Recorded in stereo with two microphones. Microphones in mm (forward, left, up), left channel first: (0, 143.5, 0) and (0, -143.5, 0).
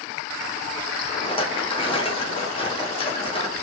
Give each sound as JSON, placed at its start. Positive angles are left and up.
{"t": 1.1, "sound": "a rattle", "side_deg": 20, "distance_m": 0.6}